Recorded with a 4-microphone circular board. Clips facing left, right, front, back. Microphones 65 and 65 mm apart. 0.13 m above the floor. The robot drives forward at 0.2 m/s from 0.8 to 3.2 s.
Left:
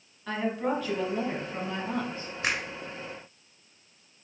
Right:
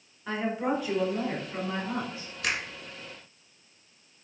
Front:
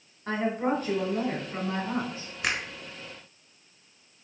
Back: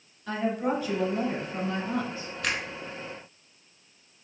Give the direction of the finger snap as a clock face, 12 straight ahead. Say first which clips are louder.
Left 1 dB, front 1 dB; 10 o'clock.